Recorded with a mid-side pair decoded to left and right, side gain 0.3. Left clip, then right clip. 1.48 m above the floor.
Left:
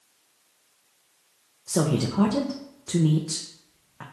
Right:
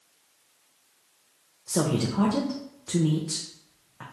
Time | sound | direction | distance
1.7 | a woman speaking | 30° left | 0.6 m